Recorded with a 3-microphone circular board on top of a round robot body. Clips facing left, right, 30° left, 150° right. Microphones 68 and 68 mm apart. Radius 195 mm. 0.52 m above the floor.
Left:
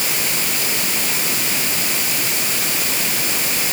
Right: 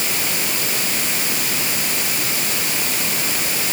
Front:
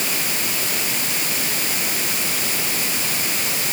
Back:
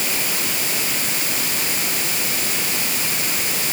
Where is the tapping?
No tapping in this recording.